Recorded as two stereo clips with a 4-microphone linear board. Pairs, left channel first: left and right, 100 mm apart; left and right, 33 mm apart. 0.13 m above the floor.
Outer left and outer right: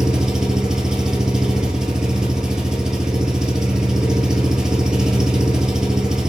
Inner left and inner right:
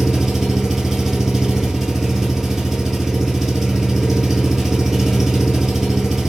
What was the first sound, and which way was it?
An engine running, 10° right (ahead or behind).